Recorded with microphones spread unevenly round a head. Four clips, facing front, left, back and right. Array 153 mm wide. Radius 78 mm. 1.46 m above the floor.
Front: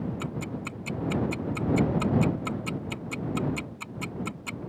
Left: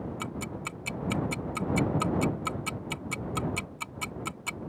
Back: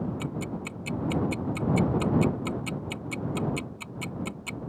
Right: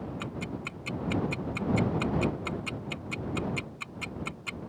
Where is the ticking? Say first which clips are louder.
Even, back 1 dB; 105° left.